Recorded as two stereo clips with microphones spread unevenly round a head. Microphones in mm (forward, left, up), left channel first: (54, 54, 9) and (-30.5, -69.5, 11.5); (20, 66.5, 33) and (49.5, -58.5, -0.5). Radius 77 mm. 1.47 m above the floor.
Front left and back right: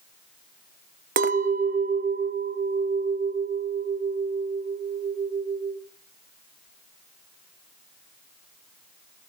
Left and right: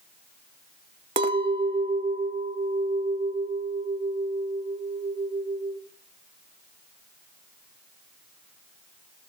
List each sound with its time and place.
1.2 s a clink: 140° right, 0.9 m